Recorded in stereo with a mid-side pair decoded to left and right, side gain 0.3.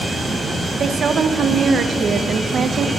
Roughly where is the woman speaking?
Ahead right.